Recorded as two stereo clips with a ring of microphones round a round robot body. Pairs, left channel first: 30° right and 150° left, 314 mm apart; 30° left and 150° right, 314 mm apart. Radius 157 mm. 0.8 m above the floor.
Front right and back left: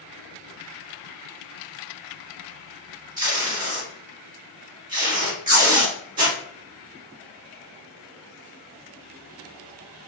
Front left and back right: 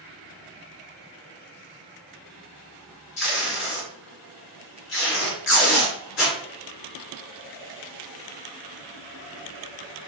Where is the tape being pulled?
85° left, 1.8 m.